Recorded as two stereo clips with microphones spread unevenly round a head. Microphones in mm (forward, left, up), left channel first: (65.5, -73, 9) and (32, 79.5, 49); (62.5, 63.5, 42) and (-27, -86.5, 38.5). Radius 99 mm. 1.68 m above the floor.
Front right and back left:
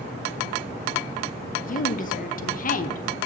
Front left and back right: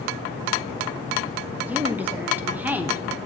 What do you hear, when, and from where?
1.6 s a woman speaking: 40° right, 0.6 m